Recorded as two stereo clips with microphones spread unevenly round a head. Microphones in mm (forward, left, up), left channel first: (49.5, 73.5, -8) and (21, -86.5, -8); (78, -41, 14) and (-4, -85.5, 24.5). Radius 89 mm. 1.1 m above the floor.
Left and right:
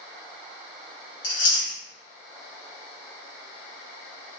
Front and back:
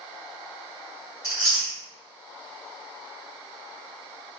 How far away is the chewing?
About 1.6 m.